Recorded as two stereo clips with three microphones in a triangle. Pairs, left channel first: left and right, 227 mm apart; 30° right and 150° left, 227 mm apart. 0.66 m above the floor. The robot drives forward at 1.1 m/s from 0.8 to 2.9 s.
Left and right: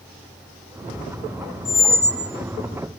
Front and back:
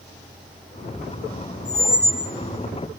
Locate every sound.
1.6 s a squeak: 35° left, 1.3 m; by 2.3 s 75° left, 0.9 m